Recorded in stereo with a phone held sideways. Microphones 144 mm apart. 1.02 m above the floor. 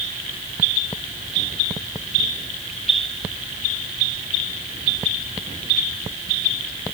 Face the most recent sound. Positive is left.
No sound to turn to.